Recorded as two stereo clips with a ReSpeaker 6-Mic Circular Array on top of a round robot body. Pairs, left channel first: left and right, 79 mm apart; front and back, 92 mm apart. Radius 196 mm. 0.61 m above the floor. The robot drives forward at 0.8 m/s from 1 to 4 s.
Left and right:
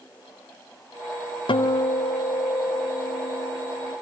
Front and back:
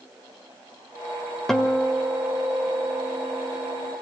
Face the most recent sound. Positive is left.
turn(degrees=135)